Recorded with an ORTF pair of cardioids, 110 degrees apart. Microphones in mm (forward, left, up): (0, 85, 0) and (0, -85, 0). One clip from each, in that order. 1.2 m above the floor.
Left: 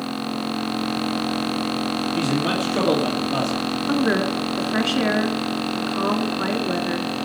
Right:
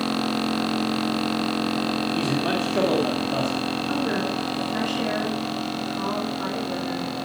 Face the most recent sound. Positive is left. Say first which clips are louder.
# left 7 dB
turn(degrees=50)